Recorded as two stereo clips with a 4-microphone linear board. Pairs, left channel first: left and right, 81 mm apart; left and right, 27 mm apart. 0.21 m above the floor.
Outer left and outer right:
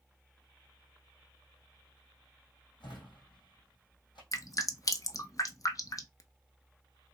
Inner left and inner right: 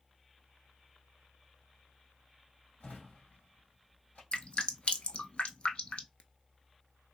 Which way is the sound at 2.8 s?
80° left.